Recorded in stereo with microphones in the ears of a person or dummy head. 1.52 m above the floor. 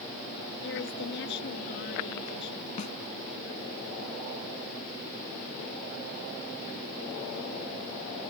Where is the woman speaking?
70° left (ahead or behind).